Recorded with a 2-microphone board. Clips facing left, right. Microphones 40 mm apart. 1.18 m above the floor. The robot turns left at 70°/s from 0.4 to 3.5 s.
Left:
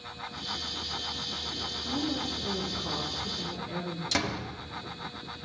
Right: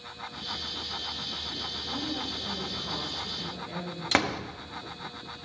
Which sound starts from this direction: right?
A door slam, at 4.1 s.